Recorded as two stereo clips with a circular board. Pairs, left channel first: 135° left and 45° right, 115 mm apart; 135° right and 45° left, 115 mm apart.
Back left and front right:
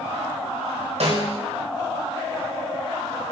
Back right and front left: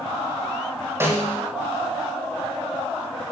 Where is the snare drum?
25° right, 8.5 m.